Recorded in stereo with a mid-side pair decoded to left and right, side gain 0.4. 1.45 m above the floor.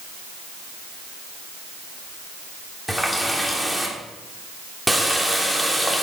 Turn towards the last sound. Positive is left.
turn(degrees=-5)